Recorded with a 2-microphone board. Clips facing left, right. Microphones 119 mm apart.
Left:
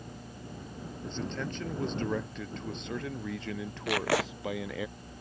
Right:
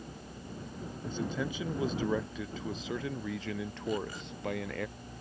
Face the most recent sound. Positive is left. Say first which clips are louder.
# left 7 dB
turn(degrees=85)